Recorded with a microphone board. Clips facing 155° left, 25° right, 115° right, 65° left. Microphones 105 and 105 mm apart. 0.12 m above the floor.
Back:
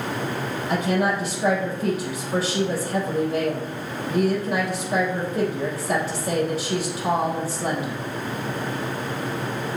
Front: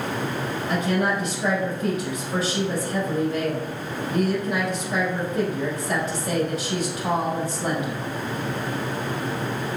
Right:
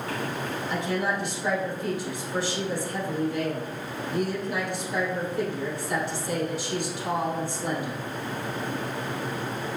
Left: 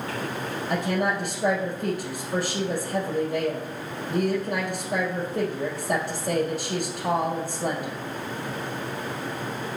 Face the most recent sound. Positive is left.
turn(degrees=105)